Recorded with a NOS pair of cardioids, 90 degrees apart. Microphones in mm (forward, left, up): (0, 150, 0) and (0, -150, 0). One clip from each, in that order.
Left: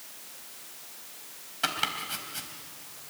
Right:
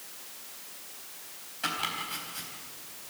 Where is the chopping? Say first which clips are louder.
Left 2 dB; 45° left, 4 m.